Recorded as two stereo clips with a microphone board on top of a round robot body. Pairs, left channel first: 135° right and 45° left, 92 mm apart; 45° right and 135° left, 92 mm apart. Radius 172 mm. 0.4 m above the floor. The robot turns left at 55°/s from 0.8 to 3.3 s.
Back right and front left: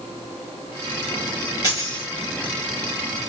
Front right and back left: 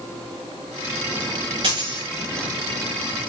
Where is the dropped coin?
175° left, 6.5 m; by 2.0 s 155° left, 6.5 m.